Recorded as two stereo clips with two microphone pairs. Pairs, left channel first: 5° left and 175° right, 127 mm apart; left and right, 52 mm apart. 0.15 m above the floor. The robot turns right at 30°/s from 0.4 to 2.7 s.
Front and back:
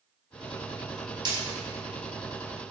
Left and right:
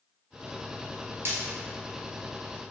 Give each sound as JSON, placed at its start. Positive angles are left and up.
{"t": 1.2, "sound": "breaking glass", "azimuth_deg": -120, "distance_m": 1.2}